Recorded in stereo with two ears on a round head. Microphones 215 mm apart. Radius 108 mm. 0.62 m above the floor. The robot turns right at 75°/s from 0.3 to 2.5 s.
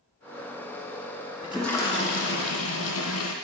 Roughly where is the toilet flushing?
Ahead.